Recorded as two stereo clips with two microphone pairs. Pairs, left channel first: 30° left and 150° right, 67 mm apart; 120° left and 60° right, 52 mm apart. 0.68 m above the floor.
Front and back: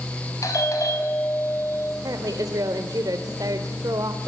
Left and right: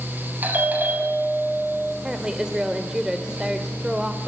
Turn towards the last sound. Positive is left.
turn(degrees=-135)